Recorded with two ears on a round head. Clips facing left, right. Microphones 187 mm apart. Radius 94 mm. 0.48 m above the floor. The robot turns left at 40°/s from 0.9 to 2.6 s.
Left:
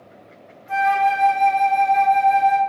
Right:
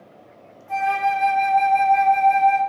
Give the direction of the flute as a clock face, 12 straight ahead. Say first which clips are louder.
Left 3 dB; 7 o'clock.